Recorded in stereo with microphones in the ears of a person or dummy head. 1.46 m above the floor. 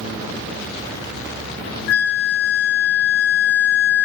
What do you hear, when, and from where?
1.9 s a flute: 60° left (ahead or behind), 0.8 m